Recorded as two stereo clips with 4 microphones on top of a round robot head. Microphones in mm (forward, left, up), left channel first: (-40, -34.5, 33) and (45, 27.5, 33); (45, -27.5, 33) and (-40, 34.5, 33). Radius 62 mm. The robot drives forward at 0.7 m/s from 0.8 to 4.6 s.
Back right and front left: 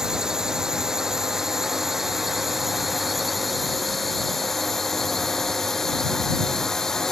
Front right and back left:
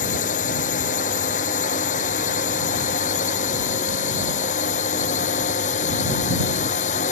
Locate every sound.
0.0 s a drone: 50° right; by 7.1 s 60° right